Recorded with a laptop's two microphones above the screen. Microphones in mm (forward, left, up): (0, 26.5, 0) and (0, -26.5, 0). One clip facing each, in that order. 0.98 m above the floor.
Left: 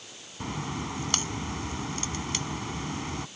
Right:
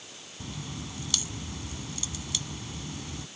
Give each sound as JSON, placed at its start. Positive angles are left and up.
{"t": 0.4, "sound": "a crack", "side_deg": 45}